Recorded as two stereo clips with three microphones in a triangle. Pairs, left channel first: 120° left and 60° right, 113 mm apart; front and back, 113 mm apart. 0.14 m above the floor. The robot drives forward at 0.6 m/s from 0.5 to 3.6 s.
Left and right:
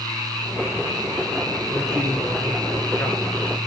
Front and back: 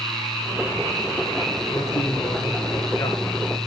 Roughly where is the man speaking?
Ahead left.